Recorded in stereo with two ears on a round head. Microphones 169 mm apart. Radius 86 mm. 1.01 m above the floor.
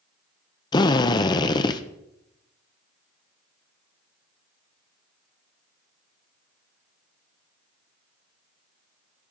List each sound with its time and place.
0.7 s a drill: 25° left (ahead or behind), 0.6 m